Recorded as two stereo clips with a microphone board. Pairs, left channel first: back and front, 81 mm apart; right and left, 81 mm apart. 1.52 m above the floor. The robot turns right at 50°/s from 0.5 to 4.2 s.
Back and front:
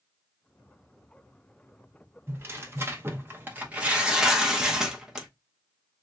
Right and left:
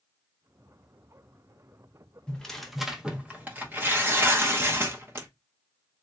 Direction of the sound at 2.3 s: 20° right.